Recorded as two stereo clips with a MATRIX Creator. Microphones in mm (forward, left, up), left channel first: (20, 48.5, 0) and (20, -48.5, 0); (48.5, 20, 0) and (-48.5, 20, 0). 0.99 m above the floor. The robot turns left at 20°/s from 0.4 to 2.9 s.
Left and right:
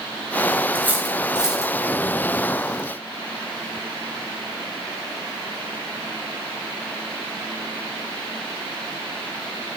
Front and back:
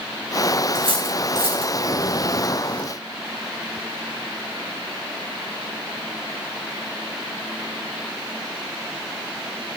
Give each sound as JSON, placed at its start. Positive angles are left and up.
{"t": 0.8, "sound": "cutlery clinking", "azimuth_deg": -160, "distance_m": 3.5}